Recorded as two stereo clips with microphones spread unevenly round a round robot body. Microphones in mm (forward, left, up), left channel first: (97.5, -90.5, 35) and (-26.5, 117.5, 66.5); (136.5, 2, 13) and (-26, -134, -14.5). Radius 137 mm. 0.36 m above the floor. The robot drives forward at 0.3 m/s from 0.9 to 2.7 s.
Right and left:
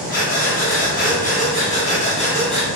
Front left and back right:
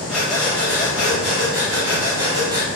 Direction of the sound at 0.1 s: 55° right.